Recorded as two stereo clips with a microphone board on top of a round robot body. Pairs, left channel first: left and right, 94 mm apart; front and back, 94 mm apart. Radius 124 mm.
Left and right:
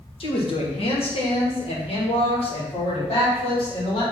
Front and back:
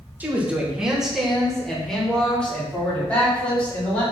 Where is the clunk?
I don't hear a clunk.